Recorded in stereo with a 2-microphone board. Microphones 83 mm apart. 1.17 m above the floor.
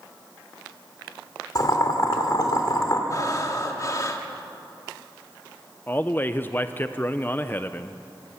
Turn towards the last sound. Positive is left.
turn(degrees=20)  # may be behind; listen again after turning